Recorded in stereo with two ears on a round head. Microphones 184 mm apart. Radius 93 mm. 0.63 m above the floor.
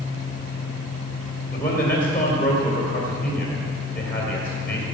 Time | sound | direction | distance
1.5 | a man speaking | 10° left (ahead or behind) | 2 m